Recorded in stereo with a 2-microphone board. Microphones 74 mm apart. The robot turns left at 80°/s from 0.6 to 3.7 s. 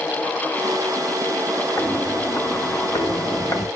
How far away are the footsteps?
About 1.6 m.